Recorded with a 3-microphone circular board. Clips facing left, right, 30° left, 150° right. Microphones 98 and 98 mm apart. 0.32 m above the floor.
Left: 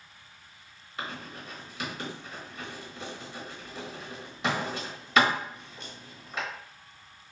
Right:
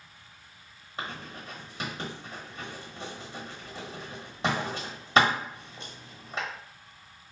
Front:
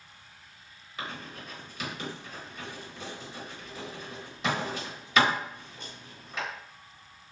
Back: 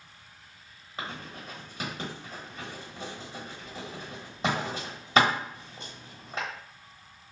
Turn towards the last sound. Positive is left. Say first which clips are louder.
# even, back 1 dB
turn(degrees=-125)